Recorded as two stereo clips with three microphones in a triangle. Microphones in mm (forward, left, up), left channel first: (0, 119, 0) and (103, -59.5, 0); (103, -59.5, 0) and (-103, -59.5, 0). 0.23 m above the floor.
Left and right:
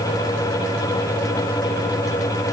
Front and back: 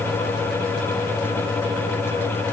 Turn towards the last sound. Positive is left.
No sound to turn to.